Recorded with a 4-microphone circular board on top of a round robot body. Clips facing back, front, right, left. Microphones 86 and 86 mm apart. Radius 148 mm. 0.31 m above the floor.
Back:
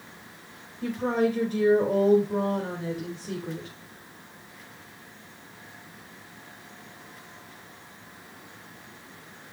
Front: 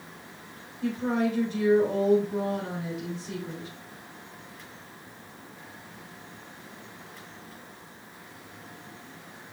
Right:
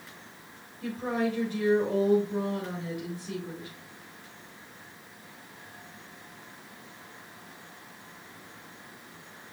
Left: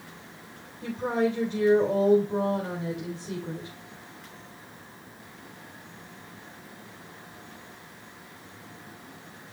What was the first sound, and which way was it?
A woman speaking, 150° left.